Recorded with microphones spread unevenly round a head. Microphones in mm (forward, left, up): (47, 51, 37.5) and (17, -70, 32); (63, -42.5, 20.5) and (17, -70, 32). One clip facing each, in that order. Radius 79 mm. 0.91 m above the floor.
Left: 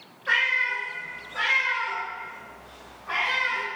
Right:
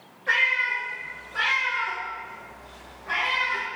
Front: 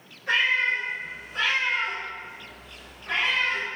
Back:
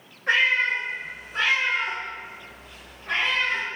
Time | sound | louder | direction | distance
0.3 | a cat meowing | right 1 dB, back 2 dB | 170° right | 1.2 m